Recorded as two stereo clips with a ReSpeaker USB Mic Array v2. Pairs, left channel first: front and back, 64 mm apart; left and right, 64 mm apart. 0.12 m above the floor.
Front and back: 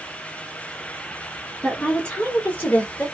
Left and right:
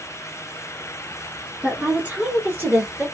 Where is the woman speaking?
65° right, 1.2 m; by 3.0 s 45° right, 1.6 m.